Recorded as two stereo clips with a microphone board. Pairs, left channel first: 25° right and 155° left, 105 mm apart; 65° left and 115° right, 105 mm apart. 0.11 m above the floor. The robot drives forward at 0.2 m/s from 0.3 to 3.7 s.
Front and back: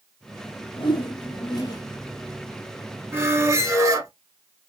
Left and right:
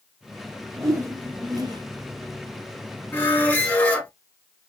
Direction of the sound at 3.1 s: 120° left.